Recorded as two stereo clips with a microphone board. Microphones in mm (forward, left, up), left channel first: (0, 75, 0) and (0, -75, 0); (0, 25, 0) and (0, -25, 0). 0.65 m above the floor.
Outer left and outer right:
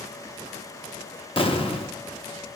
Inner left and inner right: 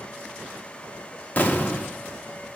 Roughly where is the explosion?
Left.